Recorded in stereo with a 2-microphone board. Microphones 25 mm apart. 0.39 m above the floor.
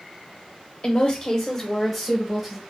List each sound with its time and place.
0.8 s a woman speaking: 40° left (ahead or behind), 1.1 m; by 2.6 s 15° right (ahead or behind), 0.9 m